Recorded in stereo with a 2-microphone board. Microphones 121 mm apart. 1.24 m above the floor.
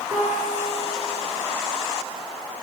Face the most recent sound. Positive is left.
turn(degrees=-30)  # may be behind; listen again after turning